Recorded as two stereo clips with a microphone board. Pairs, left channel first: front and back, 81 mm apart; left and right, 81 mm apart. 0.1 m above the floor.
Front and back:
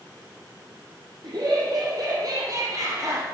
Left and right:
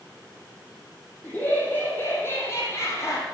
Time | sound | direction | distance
1.2 | laughter | 155° left | 3 m